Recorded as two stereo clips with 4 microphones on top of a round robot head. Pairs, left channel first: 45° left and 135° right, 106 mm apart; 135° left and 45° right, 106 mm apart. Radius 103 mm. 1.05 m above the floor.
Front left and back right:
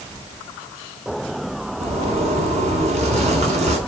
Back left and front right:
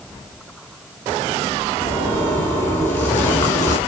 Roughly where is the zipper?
Behind right.